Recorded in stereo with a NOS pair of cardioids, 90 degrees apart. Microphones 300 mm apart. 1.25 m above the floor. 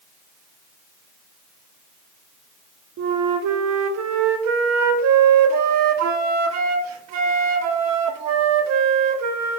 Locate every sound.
3.0 s a flute: 65° right, 0.6 m